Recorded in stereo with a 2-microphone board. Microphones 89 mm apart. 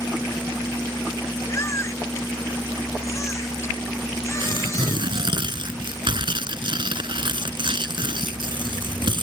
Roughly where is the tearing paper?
Right.